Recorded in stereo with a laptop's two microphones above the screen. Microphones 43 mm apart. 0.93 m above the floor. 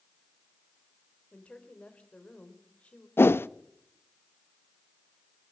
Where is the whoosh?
65° left (ahead or behind), 0.5 m.